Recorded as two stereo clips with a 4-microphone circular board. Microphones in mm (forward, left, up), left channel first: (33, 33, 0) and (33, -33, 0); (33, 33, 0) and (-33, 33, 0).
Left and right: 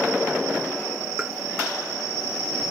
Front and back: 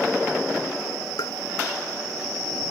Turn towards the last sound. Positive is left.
turn(degrees=-10)